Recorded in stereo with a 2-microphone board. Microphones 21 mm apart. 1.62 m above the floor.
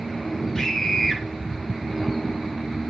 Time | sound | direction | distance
0.6 | a scream | 15° left (ahead or behind) | 7.5 m